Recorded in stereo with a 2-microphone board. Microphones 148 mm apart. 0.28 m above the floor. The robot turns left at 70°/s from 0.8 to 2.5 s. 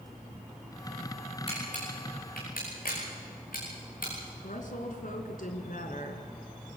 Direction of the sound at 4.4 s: 65° left (ahead or behind).